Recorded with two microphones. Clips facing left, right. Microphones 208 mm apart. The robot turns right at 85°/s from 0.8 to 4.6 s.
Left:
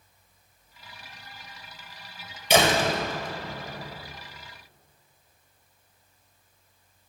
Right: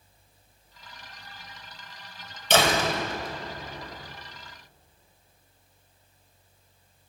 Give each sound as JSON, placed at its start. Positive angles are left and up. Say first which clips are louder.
{"t": 2.5, "sound": "a door slam", "louder": "left 2 dB", "azimuth_deg": 10, "distance_m": 1.7}